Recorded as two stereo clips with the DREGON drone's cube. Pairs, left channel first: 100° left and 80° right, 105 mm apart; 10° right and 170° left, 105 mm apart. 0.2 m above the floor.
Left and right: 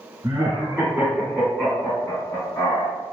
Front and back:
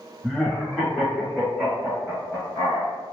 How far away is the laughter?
About 1.2 m.